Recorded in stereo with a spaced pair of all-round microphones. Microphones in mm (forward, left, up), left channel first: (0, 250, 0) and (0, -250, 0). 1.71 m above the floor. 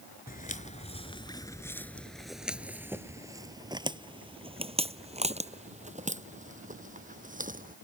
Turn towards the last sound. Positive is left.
turn(degrees=-15)  # may be behind; listen again after turning